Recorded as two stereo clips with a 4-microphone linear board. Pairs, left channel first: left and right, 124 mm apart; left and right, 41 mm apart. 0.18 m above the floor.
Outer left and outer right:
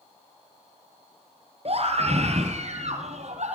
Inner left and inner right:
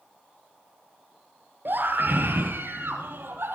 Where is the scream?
60° right (ahead or behind), 4 m; by 3.6 s 70° right (ahead or behind), 7 m.